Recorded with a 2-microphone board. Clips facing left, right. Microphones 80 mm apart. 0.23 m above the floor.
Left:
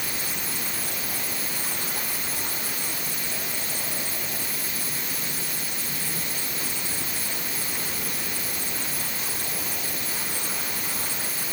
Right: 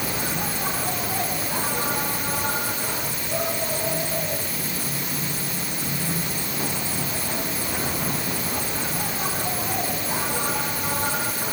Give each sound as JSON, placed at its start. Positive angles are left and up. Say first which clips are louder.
{"t": 0.0, "sound": "an insect", "louder": "right 7 dB", "side_deg": -80}